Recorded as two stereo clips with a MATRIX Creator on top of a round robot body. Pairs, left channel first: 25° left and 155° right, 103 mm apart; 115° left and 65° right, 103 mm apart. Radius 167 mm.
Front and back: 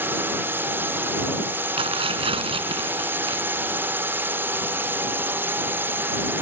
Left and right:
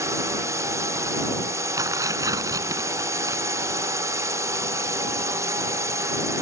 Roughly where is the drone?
Right.